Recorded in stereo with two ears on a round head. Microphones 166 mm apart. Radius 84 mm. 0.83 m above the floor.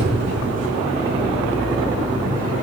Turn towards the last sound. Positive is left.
turn(degrees=-40)  # may be behind; listen again after turning